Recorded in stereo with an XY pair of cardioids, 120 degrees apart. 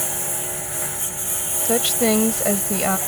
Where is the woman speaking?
10° left.